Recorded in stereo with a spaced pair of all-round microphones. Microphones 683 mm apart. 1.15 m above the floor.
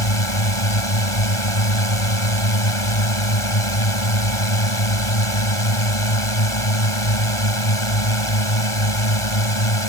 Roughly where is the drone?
Left.